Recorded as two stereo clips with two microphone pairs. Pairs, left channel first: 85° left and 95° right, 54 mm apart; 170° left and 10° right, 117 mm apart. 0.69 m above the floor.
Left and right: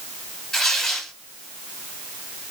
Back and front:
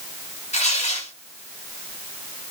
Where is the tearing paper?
175° left, 2 m.